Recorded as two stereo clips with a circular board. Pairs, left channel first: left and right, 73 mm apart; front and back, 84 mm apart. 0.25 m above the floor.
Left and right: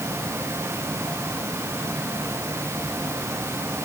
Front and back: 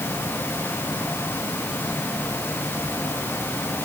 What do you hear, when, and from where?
Only background noise.